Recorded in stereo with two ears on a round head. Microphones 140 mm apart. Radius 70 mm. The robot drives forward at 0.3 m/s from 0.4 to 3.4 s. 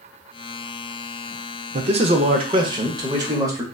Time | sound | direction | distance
1.7 | a man speaking | 45° right (ahead or behind) | 0.5 m